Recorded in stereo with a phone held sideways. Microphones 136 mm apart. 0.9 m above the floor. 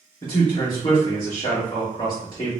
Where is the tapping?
No tapping in this recording.